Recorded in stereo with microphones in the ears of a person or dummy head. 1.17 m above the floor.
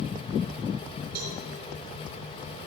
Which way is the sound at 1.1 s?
45° right (ahead or behind).